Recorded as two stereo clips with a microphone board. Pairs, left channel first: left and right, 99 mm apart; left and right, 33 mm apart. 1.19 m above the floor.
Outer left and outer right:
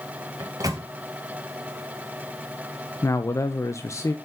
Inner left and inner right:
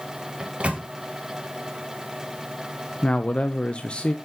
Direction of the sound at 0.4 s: 35° right (ahead or behind).